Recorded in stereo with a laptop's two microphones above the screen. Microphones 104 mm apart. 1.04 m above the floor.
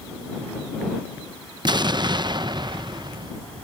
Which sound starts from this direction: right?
An explosion, at 1.6 s.